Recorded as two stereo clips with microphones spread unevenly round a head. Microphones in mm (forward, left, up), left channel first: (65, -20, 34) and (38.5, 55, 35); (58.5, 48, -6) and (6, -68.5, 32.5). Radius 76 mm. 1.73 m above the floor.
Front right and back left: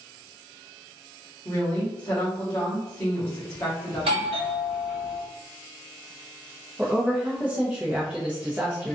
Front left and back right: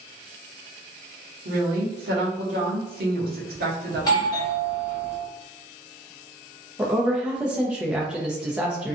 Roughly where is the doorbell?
Behind left.